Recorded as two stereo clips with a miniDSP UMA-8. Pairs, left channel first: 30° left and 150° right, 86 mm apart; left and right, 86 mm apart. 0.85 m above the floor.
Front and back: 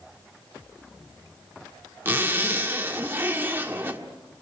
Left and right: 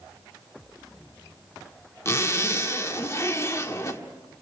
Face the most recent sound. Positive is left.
turn(degrees=145)